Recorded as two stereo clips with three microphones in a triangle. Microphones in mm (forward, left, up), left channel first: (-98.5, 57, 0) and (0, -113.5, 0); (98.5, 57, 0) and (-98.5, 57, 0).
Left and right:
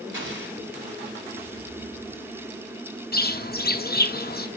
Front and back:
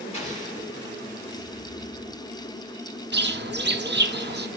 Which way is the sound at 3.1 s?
155° left.